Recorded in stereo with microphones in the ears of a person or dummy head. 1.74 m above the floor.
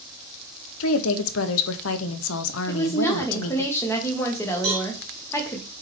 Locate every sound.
0.8 s a woman speaking: 75° left (ahead or behind), 1.1 m
2.7 s a woman speaking: 15° left (ahead or behind), 1.8 m
4.6 s a cowbell: 30° right (ahead or behind), 2.0 m